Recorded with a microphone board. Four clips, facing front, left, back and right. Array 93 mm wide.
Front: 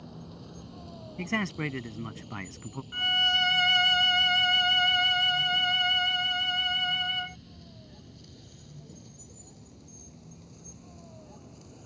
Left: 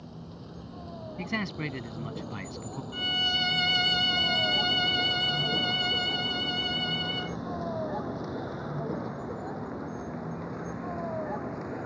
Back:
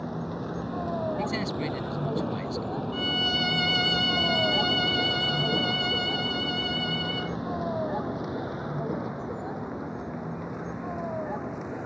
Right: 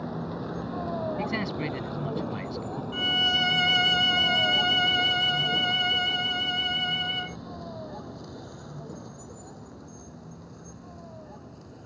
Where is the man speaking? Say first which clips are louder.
Right 4 dB, back 3 dB; 10° left.